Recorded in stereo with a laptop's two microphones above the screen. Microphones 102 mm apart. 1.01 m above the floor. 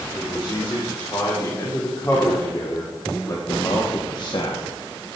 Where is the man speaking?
30° left (ahead or behind), 3.5 m; by 5.2 s 55° left (ahead or behind), 1.3 m.